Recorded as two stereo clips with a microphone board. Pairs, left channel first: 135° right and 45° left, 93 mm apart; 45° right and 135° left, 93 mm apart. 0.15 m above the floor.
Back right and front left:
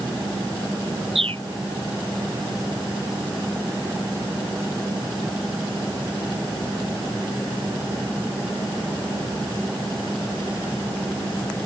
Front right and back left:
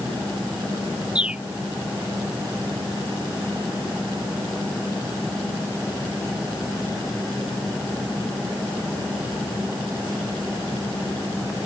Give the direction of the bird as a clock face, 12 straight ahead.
10 o'clock.